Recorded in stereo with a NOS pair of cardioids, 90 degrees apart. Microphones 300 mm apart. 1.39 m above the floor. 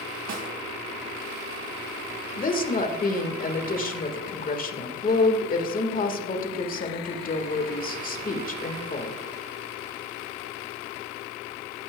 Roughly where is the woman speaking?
Ahead left.